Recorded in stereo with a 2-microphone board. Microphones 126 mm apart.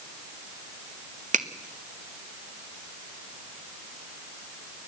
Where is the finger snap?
80° right, 1.1 m.